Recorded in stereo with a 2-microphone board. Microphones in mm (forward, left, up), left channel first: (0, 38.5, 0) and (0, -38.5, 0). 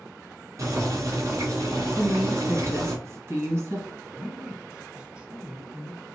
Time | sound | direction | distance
0.6 | boiling | 50° right (ahead or behind) | 2 m
1.9 | a woman speaking | 40° right (ahead or behind) | 2.5 m
4.0 | a man speaking | 15° right (ahead or behind) | 1.9 m